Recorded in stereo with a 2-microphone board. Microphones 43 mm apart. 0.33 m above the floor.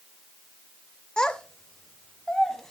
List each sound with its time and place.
1.2 s a child speaking: 15° left (ahead or behind), 0.6 m; by 2.7 s 10° left (ahead or behind), 1.5 m